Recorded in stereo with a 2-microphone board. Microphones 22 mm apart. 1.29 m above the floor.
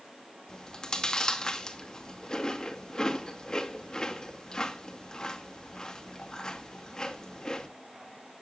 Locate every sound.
0.5 s chewing: 35° left (ahead or behind), 2.0 m